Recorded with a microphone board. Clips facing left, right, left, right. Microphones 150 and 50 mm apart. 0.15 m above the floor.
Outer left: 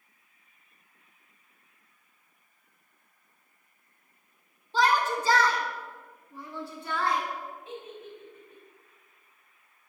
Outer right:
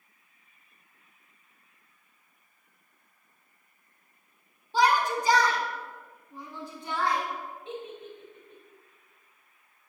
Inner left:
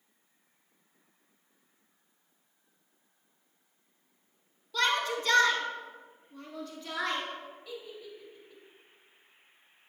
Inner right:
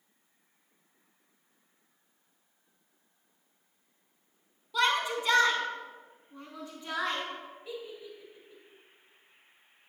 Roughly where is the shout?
Centre.